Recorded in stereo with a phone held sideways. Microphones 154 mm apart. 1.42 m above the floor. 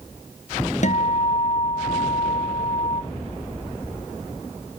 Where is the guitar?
55° left (ahead or behind), 0.6 m.